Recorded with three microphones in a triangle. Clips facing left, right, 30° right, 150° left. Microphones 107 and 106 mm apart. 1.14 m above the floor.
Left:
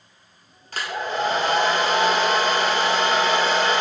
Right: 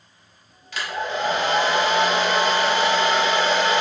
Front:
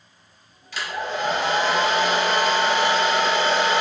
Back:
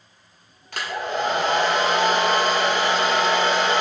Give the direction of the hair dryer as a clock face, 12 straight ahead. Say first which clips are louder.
Even, back 1 dB; 8 o'clock.